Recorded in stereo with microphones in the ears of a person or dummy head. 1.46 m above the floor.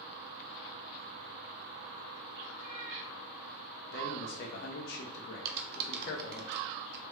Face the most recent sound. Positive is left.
turn(degrees=-60)  # may be behind; listen again after turning